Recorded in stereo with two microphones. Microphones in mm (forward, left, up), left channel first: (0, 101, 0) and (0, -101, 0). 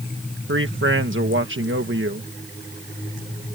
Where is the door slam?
No door slam in this recording.